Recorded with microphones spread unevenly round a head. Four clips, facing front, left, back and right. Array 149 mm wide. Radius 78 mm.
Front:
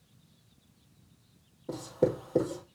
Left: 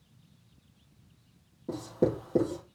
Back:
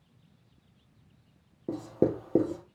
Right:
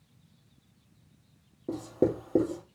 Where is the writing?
160° right, 4.5 m.